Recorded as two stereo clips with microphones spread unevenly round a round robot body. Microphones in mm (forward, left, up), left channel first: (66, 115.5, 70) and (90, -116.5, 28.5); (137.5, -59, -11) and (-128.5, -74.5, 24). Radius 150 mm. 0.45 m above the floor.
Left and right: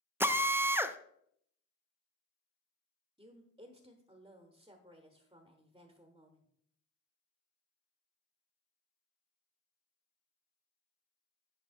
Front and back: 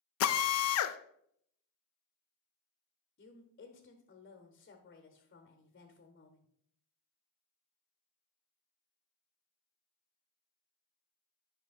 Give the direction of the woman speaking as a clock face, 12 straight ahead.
1 o'clock.